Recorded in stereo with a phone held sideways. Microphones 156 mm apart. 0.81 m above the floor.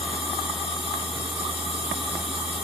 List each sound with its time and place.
0.0 s a machine running: 35° left (ahead or behind), 6.5 m